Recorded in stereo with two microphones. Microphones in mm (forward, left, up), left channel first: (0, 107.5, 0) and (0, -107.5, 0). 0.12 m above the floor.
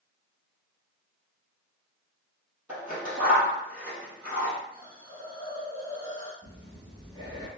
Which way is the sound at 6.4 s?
20° right (ahead or behind).